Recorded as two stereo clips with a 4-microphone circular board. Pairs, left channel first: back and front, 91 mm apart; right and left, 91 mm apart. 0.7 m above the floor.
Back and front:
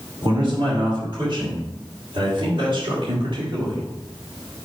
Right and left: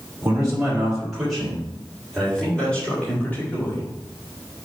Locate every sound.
0.2 s a man speaking: 15° left, 3.5 m; by 3.9 s 25° right, 3 m